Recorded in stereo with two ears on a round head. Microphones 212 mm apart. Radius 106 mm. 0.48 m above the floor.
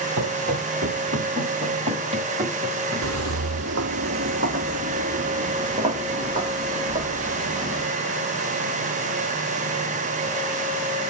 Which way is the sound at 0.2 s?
50° right (ahead or behind).